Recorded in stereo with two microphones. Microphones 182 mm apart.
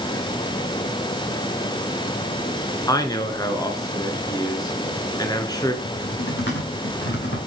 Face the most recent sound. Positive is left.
turn(degrees=85)